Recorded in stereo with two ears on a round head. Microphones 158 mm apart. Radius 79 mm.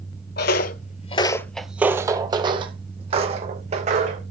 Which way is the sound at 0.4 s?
60° left (ahead or behind).